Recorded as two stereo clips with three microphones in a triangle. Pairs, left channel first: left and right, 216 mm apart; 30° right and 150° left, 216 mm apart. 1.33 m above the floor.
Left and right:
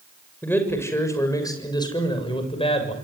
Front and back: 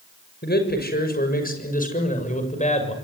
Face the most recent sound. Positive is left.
turn(degrees=30)